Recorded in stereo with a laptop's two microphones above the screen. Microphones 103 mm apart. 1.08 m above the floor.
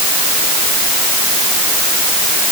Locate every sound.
Only background noise.